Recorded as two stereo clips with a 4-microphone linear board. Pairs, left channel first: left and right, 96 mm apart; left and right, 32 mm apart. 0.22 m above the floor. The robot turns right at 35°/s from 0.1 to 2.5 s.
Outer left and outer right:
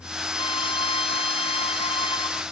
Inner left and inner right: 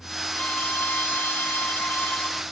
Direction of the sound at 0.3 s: 55° left.